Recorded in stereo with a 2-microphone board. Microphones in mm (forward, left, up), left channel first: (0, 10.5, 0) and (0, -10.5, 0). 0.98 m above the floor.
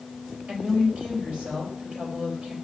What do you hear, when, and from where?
0.5 s a woman speaking: 55° right (ahead or behind), 4 m